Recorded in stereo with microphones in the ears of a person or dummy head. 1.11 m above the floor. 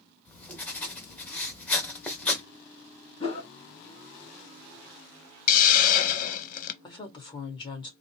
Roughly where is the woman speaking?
Left.